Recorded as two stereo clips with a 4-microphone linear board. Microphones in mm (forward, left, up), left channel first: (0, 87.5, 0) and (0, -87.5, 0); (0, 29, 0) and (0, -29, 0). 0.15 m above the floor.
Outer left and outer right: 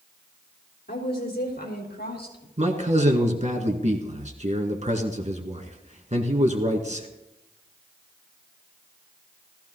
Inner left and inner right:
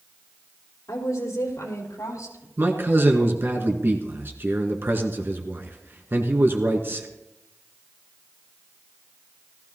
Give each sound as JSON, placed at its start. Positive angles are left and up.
{"t": 0.9, "sound": "a woman speaking", "side_deg": 65, "distance_m": 4.5}
{"t": 2.6, "sound": "a man speaking", "side_deg": -40, "distance_m": 1.8}